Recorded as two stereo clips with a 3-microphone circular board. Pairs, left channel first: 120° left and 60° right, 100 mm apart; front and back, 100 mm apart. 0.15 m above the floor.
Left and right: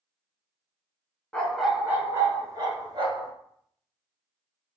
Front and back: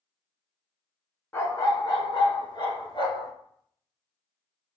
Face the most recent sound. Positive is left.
turn(degrees=-30)